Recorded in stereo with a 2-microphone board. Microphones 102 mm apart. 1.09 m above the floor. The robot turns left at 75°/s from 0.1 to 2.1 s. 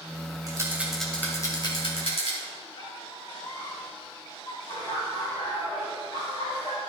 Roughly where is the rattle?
Right.